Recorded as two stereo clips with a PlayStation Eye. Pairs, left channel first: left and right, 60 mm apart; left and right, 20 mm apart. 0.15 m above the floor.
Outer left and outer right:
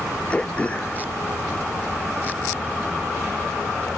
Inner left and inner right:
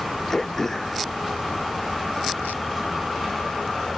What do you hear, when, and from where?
0.3 s throat clearing: 20° left (ahead or behind)